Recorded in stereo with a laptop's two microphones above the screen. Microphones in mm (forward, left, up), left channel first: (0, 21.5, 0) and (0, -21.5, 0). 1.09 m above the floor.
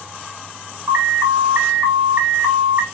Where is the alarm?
45° right (ahead or behind), 3.5 m.